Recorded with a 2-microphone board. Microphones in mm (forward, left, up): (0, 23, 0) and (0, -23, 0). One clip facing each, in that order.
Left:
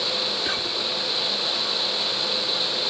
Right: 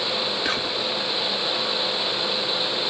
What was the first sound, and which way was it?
Whispering, 65° right (ahead or behind).